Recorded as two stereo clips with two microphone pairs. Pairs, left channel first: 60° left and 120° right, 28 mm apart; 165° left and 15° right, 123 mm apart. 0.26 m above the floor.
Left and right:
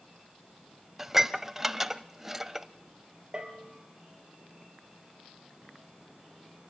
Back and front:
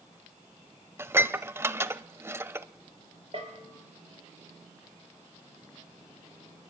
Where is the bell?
60° right, 4.5 m.